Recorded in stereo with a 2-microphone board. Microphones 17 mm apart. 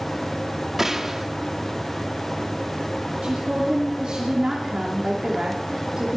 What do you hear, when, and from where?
0.8 s a gunshot: 30° right (ahead or behind), 1.1 m
3.2 s a woman speaking: 65° right (ahead or behind), 2.5 m